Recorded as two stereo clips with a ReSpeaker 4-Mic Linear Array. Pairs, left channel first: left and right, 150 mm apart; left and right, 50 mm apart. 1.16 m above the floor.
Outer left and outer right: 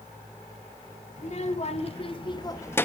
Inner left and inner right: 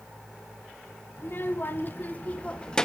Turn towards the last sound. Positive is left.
turn(degrees=10)  # may be behind; listen again after turning